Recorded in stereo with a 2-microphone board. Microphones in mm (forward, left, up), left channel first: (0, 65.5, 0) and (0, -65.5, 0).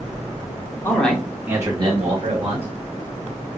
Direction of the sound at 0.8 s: 20° left (ahead or behind).